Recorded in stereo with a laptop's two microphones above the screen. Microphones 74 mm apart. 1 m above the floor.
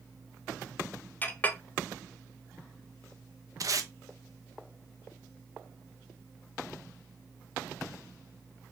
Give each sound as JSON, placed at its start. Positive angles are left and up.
{"t": 1.2, "sound": "a clink", "side_deg": 20, "distance_m": 0.6}
{"t": 3.6, "sound": "tape being pulled", "side_deg": -50, "distance_m": 0.6}